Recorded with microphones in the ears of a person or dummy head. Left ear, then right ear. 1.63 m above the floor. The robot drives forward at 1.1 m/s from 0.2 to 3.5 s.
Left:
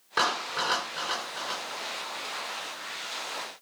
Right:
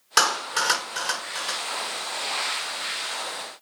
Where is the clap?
70° right (ahead or behind), 5 m; by 1.6 s 55° right (ahead or behind), 6 m.